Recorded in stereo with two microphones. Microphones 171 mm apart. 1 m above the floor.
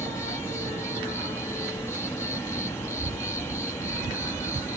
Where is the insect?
15° left (ahead or behind).